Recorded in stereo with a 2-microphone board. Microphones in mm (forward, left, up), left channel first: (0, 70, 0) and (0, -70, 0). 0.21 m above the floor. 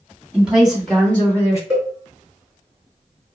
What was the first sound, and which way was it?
A woman speaking, 10° right (ahead or behind).